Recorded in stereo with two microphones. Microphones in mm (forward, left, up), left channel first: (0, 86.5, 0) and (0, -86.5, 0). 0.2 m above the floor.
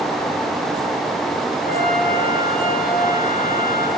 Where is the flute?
60° left (ahead or behind), 1.9 m.